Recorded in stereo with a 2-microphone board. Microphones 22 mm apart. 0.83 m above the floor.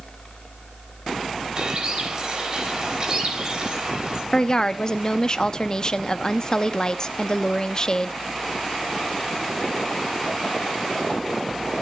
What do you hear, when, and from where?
1.6 s a bird: 40° right (ahead or behind), 4 m
4.3 s a woman speaking: 35° left (ahead or behind), 0.8 m